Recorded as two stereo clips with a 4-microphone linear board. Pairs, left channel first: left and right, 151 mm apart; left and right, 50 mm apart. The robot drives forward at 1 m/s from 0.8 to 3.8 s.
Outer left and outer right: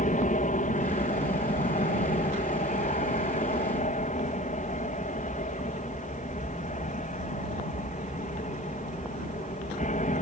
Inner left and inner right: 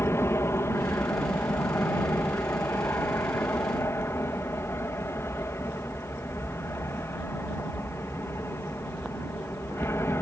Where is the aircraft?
60° left (ahead or behind); by 10.2 s 55° left (ahead or behind).